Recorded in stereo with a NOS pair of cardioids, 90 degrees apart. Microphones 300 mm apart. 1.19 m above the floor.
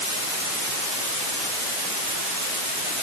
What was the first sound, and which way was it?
Only background noise.